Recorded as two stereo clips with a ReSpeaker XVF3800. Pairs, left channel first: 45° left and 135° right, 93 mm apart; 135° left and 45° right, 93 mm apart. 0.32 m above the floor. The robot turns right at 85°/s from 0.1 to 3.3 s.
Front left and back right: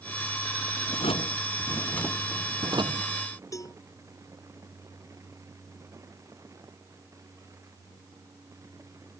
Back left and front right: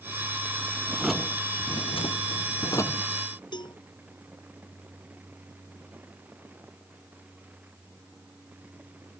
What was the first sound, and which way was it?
A drawer, 25° left.